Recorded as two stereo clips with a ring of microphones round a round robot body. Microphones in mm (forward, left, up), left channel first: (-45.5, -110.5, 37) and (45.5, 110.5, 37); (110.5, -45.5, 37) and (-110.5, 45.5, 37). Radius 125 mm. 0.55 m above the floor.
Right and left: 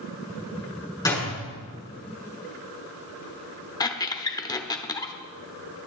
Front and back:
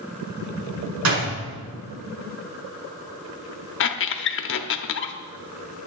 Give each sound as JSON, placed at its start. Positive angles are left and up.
{"t": 1.1, "sound": "a door slam", "azimuth_deg": 170, "distance_m": 5.5}
{"t": 3.8, "sound": "a squeak", "azimuth_deg": -40, "distance_m": 0.9}